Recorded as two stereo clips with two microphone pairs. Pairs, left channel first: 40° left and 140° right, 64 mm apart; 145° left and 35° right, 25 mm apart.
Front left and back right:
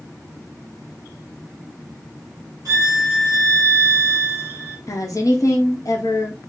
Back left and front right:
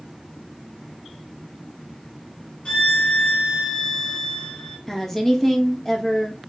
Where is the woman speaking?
65° left, 0.9 m.